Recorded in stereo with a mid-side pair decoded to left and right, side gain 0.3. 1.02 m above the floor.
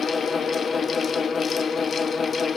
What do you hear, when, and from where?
0.0 s a fan: 70° left, 0.8 m